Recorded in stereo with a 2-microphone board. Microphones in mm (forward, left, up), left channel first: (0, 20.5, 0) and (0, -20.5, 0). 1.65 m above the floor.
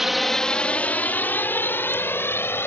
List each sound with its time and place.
0.0 s a drone: 5° right (ahead or behind); by 2.7 s 65° left (ahead or behind)